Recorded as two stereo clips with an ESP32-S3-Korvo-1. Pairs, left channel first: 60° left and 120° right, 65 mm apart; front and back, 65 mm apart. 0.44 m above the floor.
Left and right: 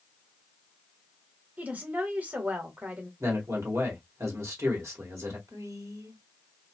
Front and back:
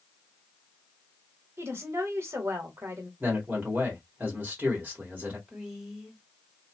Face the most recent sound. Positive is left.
turn(degrees=-100)